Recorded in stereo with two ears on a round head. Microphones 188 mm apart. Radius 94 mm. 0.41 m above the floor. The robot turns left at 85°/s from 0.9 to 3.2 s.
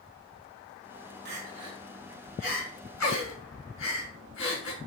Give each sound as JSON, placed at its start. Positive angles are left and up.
{"t": 1.2, "sound": "crying", "side_deg": -55, "distance_m": 4.5}